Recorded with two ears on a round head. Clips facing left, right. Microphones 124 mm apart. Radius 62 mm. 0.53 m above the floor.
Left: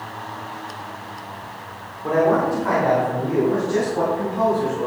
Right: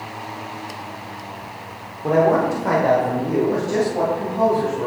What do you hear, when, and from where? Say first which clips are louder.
2.0 s a man speaking: right 1 dB; 25° right (ahead or behind), 1.0 m; by 4.9 s 45° right (ahead or behind), 3 m